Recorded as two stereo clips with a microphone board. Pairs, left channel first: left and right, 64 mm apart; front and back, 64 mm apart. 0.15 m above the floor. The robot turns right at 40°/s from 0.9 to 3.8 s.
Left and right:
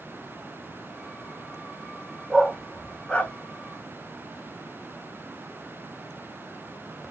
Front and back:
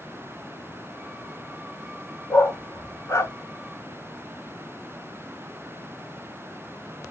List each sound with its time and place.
2.3 s a dog barking: 10° right, 0.9 m; by 3.3 s 35° left, 0.9 m